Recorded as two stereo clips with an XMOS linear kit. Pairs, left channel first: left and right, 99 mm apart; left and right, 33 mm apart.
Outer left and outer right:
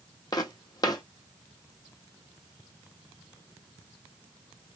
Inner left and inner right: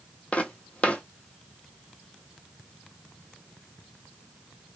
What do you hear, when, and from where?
0.3 s footsteps: 45° left (ahead or behind), 0.8 m